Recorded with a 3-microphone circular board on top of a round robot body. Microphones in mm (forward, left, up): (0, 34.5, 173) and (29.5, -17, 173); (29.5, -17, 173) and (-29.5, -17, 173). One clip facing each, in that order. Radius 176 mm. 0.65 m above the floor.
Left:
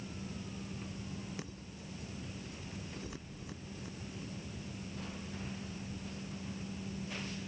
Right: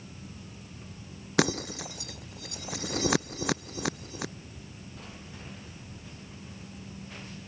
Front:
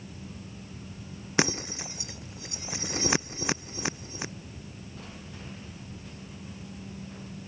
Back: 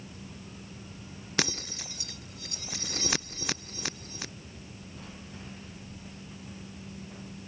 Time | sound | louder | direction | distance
1.4 | breaking glass | right 19 dB, front 5 dB | 70° right | ?